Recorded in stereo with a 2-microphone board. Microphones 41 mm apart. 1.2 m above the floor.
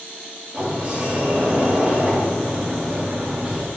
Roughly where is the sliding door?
Right.